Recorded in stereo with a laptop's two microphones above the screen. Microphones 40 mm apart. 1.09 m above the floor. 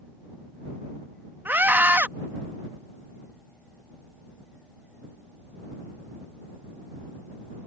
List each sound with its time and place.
1.4 s a scream: 50° right (ahead or behind)